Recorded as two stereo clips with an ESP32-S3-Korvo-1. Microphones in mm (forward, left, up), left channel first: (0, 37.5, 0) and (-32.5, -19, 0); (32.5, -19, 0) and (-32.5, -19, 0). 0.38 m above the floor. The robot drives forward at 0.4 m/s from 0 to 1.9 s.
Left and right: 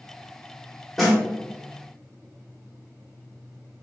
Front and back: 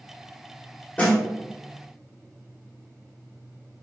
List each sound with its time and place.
1.0 s a snare drum: 30° right, 0.9 m; by 1.2 s 40° right, 0.8 m